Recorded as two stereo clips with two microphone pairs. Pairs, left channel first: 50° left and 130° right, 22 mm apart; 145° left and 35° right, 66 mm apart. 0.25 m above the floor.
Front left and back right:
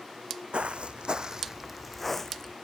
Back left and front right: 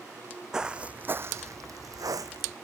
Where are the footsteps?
115° right; by 2.5 s 10° right.